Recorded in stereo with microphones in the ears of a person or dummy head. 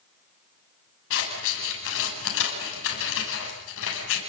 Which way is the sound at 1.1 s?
70° left (ahead or behind).